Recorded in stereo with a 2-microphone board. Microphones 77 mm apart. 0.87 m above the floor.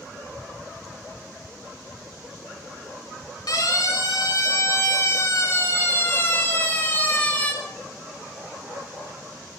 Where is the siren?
65° left (ahead or behind), 3.5 m; by 7.5 s 20° left (ahead or behind), 3.5 m.